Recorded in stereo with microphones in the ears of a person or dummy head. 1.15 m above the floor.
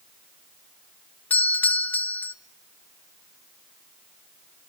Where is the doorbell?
5° left (ahead or behind), 0.5 m.